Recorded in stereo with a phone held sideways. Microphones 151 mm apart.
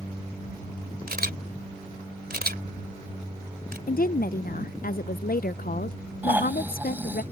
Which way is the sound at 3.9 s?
65° left (ahead or behind).